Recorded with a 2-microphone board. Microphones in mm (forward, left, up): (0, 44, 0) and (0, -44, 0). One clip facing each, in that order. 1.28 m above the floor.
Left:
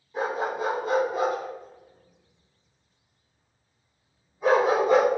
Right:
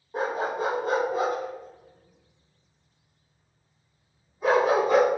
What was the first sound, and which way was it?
A dog barking, 60° right (ahead or behind).